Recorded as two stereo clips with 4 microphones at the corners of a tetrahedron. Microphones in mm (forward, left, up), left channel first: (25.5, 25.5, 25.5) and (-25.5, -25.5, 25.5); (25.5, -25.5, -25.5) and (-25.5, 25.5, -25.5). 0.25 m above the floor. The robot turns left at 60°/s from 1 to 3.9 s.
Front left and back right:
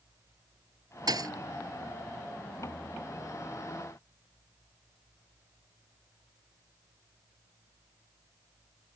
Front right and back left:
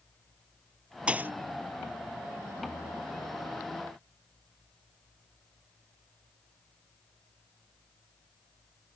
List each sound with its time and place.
1.1 s a thud: 150° right; by 1.3 s 165° right